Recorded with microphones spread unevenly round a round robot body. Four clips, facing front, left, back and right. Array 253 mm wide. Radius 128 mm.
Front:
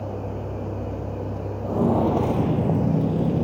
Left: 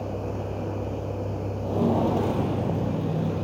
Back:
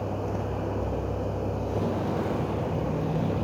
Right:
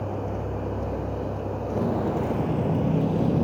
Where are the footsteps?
25° left, 1.7 m; by 3.4 s 50° right, 1.3 m.